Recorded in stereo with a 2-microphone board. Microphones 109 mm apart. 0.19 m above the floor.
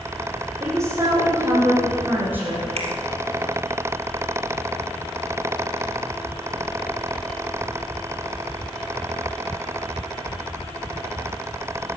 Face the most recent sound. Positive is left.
turn(degrees=-75)  # may be behind; listen again after turning